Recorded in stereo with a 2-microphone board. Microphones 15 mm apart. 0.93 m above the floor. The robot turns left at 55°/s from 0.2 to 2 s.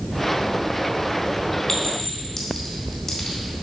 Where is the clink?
50° left (ahead or behind), 2 m; by 3.4 s 35° left (ahead or behind), 2 m.